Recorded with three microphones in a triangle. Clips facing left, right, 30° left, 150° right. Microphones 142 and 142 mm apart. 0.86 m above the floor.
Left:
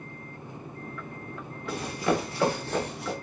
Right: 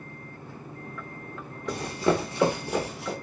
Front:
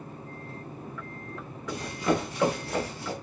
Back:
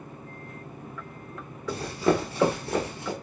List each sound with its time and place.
1.7 s running footsteps: 110° right, 1.1 m; by 3.1 s 175° left, 0.9 m